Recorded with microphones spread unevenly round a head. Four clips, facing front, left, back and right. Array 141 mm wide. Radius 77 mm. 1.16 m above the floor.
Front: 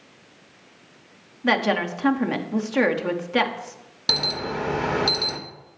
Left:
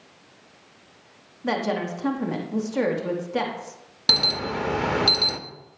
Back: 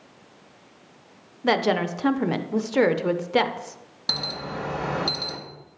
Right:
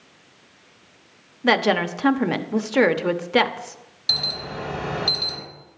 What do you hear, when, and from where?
1.4 s a woman speaking: 105° right, 0.7 m
4.1 s an alarm: 55° left, 1.1 m